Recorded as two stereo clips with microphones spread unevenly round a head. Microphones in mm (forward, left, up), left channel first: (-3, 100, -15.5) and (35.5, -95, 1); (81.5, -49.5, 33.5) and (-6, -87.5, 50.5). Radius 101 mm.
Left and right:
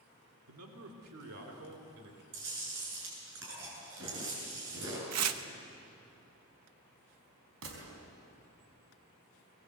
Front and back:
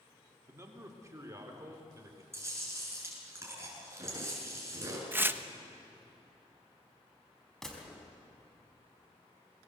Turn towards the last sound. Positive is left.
turn(degrees=-65)